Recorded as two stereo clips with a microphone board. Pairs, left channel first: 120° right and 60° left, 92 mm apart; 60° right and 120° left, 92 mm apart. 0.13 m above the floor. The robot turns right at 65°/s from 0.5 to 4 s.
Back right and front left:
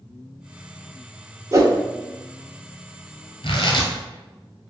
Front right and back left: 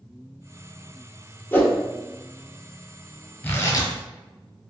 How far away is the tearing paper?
About 0.7 m.